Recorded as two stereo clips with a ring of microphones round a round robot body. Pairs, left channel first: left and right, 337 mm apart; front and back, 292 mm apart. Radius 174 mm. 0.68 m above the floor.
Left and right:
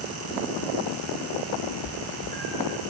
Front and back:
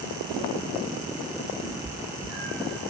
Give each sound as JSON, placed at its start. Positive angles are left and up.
{"t": 1.6, "sound": "a cat meowing", "azimuth_deg": -55, "distance_m": 4.0}